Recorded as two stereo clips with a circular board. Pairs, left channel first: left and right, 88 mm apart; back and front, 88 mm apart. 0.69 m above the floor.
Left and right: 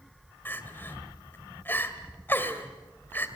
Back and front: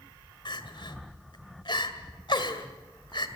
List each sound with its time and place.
0.5 s crying: 155° left, 2.0 m